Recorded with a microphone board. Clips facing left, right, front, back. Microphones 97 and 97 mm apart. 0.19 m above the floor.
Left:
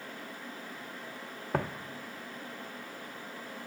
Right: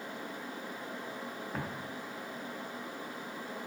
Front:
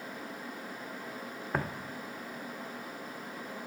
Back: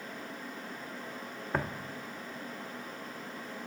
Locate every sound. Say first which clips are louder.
1.5 s footsteps: left 8 dB, even; 90° left, 0.7 m